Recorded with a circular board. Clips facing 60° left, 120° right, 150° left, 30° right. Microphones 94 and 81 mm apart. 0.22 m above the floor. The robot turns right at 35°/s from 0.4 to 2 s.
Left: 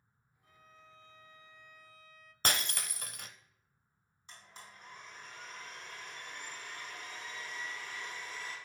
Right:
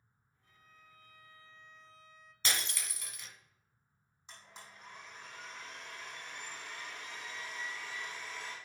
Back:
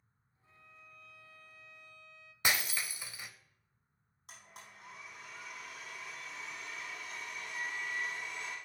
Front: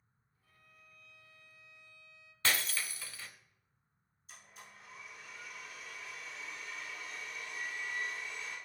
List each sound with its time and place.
0.4 s a violin: 90° left, 0.6 m; by 2.3 s 145° left, 0.6 m
2.4 s breaking glass: 80° left, 0.7 m
4.3 s a blender: 165° left, 4 m